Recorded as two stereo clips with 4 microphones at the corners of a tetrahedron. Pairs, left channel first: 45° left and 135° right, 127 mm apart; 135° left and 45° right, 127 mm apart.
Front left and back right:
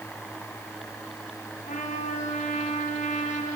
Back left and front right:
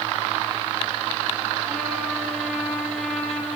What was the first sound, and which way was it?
A trumpet, 50° left.